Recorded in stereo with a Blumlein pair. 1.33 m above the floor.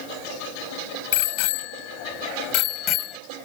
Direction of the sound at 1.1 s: 50° left.